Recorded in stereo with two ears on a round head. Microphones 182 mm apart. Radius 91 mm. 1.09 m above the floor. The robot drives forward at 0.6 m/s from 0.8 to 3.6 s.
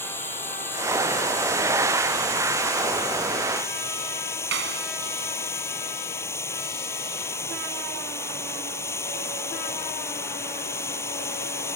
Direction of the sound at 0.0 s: 10° left (ahead or behind).